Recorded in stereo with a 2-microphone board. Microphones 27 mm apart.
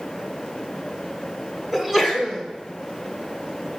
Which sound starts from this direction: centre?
A sneeze, at 1.7 s.